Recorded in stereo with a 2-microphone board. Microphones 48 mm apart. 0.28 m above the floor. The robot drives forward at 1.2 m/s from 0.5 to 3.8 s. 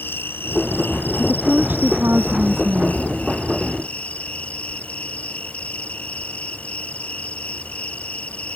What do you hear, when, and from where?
0.0 s an insect: 50° left (ahead or behind); by 8.6 s 25° left (ahead or behind)
1.2 s a woman speaking: 35° right (ahead or behind); by 3.0 s 60° right (ahead or behind)